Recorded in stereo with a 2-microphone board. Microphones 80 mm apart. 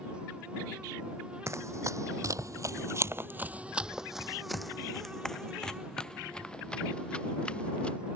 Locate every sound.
1.5 s running footsteps: 35° right (ahead or behind); by 8.0 s 15° left (ahead or behind)